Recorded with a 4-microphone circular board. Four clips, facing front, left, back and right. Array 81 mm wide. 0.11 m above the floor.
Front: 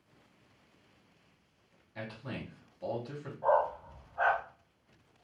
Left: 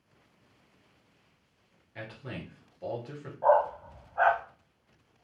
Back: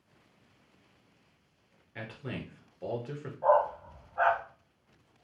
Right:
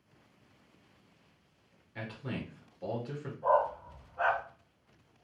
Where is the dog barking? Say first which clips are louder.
Left 4 dB, back 3 dB; 110° left, 2 m.